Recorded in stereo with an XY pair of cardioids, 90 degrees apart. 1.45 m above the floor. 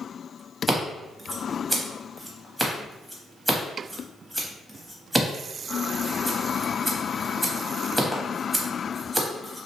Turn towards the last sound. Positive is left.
turn(degrees=-5)